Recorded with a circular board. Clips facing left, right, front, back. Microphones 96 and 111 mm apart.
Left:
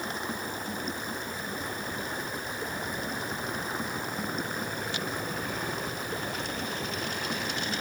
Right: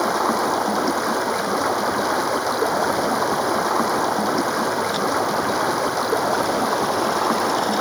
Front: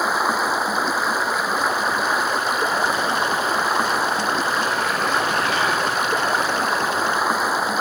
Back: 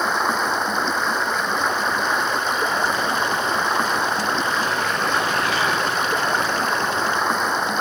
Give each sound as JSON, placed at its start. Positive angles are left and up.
{"t": 0.0, "sound": "running water", "azimuth_deg": -85}